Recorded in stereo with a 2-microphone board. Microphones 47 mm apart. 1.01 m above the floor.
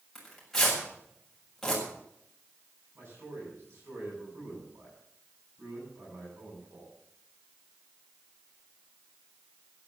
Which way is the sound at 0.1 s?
5° left (ahead or behind).